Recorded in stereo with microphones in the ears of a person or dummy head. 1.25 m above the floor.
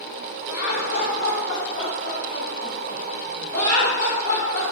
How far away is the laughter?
About 1.6 m.